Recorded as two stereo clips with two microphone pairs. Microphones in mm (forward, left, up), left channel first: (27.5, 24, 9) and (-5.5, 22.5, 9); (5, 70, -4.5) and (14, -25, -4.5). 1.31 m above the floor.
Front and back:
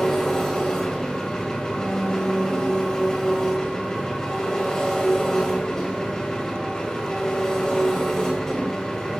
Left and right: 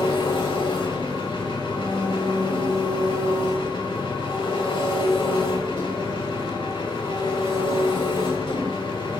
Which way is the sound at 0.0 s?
75° left.